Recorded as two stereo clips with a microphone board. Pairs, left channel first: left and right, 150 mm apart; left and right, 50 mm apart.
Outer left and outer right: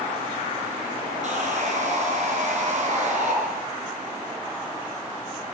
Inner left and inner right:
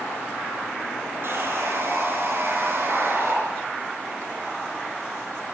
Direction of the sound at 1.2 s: 50° right (ahead or behind).